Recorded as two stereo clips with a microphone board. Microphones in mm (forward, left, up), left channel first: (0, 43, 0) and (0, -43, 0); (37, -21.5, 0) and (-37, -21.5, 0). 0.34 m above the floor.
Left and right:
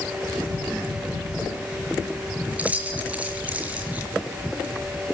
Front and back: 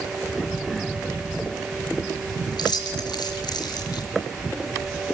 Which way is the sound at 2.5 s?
15° right.